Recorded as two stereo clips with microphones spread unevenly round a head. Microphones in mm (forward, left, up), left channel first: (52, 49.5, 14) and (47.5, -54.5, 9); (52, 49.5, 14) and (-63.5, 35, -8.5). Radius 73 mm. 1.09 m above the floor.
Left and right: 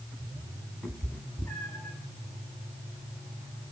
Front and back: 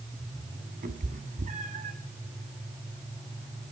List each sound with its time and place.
0.8 s a cat meowing: 175° left, 2.5 m; by 1.9 s 160° left, 2 m